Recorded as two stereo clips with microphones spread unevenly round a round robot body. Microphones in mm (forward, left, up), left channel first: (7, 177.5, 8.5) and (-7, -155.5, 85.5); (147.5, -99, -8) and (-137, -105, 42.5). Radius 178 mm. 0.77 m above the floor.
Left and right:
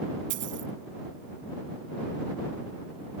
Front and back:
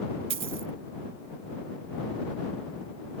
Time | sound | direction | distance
0.3 | a dropped coin | 140° right | ?